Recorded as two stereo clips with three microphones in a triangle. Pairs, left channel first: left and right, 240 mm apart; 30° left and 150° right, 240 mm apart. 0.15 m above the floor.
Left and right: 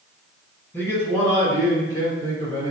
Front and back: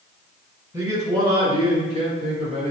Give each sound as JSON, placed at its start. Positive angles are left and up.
{"t": 0.7, "sound": "a man speaking", "azimuth_deg": 155, "distance_m": 1.5}